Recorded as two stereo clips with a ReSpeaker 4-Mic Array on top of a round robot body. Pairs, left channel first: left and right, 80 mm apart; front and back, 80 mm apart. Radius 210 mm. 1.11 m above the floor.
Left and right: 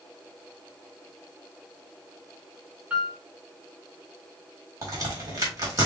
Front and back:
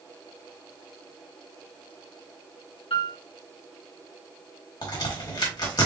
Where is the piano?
15° right, 1.2 m.